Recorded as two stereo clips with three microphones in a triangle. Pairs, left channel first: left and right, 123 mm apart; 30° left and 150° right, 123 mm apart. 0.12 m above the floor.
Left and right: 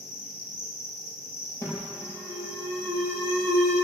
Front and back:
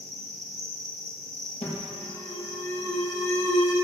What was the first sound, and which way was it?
An insect, 165° right.